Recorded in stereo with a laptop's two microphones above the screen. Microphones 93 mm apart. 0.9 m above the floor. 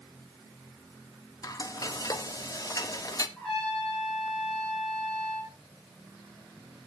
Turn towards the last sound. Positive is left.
turn(degrees=5)  # may be behind; listen again after turning